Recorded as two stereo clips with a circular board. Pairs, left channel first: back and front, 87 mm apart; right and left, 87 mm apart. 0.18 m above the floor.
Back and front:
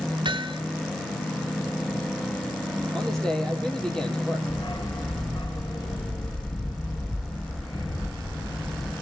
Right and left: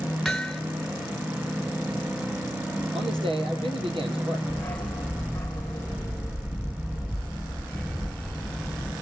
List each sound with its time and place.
0.2 s hammering: 5° right, 1.4 m
2.9 s a man speaking: 95° left, 4 m
4.5 s a dog barking: 160° right, 1.5 m